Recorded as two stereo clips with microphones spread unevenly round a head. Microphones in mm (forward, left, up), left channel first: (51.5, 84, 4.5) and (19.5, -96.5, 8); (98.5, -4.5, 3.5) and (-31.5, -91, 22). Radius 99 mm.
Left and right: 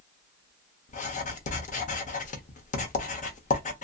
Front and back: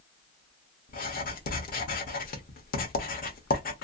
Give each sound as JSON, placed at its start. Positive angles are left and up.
{"t": 0.9, "sound": "writing", "azimuth_deg": 50, "distance_m": 0.9}